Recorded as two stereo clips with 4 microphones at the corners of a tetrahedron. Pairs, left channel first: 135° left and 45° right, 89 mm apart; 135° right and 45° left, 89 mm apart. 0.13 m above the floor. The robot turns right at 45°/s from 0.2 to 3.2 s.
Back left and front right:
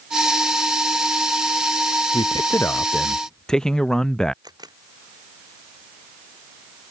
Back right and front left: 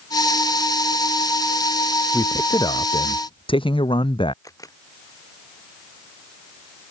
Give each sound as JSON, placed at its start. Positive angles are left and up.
{"t": 2.1, "sound": "a man speaking", "azimuth_deg": 170}
{"t": 4.4, "sound": "a camera shutter", "azimuth_deg": -85}